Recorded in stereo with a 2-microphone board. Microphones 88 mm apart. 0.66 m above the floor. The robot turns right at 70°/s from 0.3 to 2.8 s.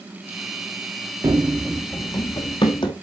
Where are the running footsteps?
45° right (ahead or behind), 0.8 m; by 2.9 s 60° left (ahead or behind), 1.9 m.